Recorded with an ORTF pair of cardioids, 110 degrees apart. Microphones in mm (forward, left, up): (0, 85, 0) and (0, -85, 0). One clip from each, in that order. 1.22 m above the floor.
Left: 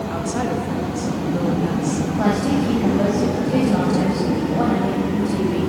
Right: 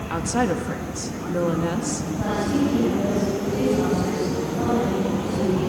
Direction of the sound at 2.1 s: 60° left.